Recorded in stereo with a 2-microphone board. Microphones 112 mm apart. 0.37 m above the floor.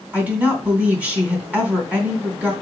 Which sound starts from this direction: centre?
A woman speaking, at 0.1 s.